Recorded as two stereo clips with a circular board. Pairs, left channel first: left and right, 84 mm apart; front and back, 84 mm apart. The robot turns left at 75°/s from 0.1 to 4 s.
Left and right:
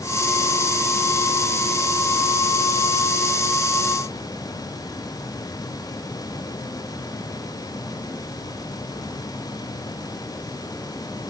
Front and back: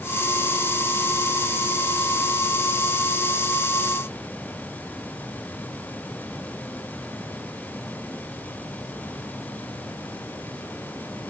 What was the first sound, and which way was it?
Only background noise.